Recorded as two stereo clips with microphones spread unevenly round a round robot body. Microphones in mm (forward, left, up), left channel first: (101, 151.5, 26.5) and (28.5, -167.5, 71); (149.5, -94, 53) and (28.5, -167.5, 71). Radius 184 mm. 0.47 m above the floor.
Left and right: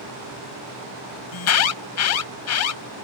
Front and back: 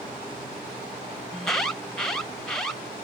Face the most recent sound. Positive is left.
turn(degrees=115)